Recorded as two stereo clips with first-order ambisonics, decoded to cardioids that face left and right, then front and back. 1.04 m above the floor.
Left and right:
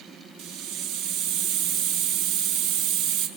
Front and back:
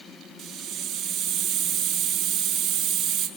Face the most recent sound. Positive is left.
turn(degrees=-115)